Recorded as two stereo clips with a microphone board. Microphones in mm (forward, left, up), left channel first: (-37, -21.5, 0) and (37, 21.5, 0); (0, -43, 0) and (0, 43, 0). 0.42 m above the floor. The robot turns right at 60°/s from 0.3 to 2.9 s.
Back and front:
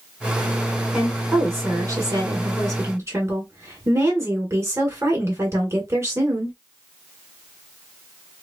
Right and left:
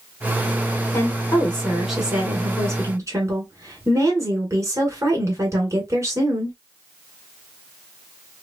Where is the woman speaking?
50° right, 1.6 m; by 6.5 s 70° left, 1.6 m.